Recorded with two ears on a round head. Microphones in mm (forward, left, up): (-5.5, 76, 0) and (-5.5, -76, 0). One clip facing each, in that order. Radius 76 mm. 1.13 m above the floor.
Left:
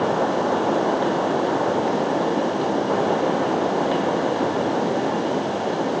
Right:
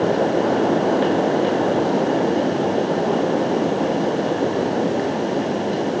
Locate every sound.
Only background noise.